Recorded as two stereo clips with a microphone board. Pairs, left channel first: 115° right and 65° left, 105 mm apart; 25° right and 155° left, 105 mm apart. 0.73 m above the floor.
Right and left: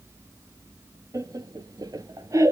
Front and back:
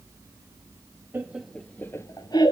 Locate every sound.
1.1 s laughter: 100° left, 0.8 m; by 2.5 s 15° left, 1.2 m